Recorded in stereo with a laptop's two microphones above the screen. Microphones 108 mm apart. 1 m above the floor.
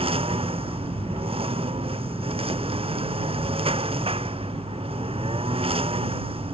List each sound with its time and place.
0.0 s a lawn mower: 65° right (ahead or behind)